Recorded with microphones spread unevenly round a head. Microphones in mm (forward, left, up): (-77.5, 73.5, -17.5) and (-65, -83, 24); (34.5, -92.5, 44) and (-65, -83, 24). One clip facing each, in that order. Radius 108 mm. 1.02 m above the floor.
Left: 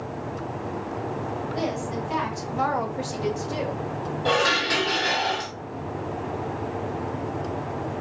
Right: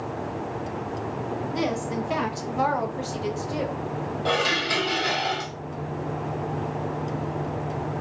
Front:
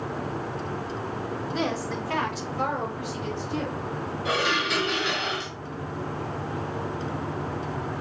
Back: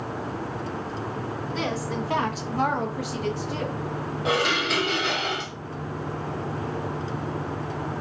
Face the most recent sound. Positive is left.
turn(degrees=-165)